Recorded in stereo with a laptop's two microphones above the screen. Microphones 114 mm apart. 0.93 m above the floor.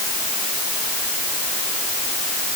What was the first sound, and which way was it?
Only background noise.